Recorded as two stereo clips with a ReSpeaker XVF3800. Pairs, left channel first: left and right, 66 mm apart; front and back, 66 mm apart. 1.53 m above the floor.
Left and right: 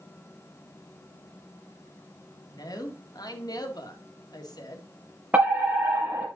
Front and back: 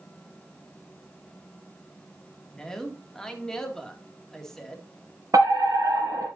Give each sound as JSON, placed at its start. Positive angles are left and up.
{"t": 2.5, "sound": "a man speaking", "azimuth_deg": 80, "distance_m": 2.0}
{"t": 5.3, "sound": "a fire alarm", "azimuth_deg": -155, "distance_m": 4.0}